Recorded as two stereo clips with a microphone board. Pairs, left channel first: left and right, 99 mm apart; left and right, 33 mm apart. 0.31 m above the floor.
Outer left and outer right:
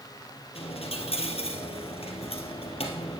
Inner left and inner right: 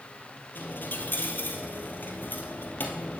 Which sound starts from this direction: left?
A dropped coin, at 0.6 s.